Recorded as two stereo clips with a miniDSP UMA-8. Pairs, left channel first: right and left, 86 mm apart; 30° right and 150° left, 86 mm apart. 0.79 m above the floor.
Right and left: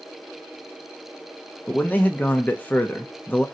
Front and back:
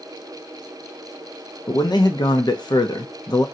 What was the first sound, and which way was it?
A man speaking, 25° right.